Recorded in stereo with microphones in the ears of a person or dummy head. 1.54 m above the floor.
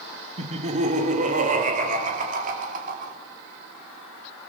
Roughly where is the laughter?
Right.